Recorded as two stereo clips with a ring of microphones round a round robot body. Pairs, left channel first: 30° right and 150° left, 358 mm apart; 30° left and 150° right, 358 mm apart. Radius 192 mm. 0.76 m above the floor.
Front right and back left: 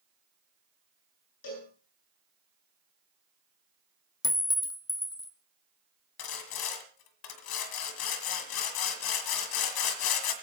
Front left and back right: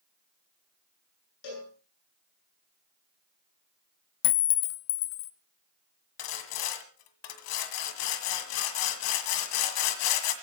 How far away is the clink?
About 0.9 m.